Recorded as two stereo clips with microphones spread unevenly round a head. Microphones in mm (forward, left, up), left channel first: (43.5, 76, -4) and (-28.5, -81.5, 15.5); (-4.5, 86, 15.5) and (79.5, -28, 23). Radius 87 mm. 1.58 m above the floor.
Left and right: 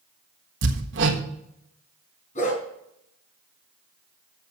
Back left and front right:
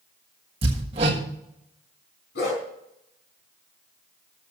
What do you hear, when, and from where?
0.6 s hammering: 115° right, 1.4 m
2.4 s a dog barking: 120° left, 4 m